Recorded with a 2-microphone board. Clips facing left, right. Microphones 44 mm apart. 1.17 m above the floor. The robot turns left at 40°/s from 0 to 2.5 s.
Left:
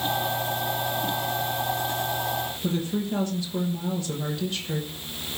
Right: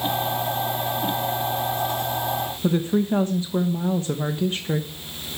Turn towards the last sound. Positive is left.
turn(degrees=-30)  # may be behind; listen again after turning